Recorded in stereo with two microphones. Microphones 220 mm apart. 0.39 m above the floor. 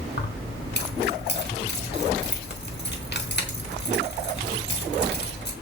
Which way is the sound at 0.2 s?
50° left (ahead or behind).